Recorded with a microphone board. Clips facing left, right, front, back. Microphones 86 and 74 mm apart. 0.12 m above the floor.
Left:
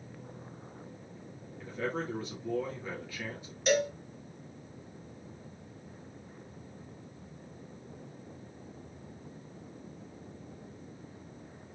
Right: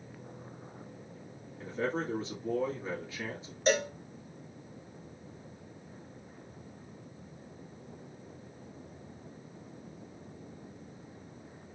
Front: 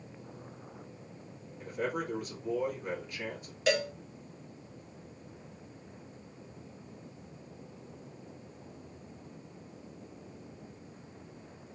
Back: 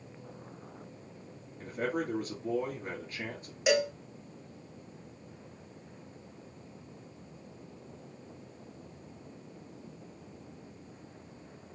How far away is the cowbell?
About 0.6 m.